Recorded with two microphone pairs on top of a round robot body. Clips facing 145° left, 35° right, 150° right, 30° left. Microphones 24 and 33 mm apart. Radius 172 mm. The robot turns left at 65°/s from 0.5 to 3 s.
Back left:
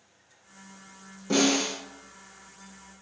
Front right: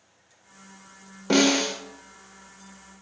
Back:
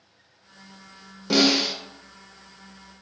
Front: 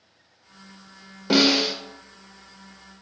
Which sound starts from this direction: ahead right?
A snare drum, at 1.3 s.